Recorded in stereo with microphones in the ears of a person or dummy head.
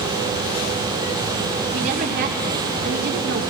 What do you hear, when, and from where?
1.7 s a woman speaking: 45° right (ahead or behind), 2.5 m; by 3.4 s 70° right (ahead or behind), 2 m